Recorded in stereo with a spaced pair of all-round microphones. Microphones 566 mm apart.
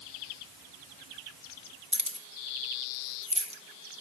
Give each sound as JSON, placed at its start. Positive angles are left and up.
{"t": 1.9, "sound": "keys jangling", "side_deg": -10, "distance_m": 0.8}